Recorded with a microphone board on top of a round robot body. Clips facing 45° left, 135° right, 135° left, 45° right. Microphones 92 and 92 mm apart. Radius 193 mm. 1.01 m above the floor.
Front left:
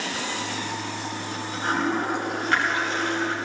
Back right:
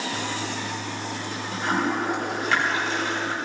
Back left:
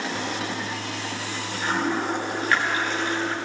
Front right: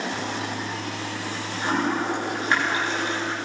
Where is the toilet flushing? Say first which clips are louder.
Back right 1 dB, even; 115° right, 7 m.